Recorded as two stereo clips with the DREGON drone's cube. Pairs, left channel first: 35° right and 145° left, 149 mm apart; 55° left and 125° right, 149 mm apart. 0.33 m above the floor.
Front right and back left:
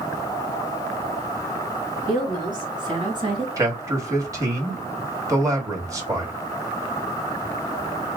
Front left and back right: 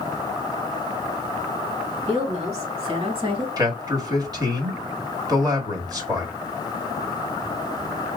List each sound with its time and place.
2.1 s a woman speaking: 155° right, 2.5 m; by 3.5 s 170° right, 1.8 m
3.6 s a man speaking: 165° right, 1.2 m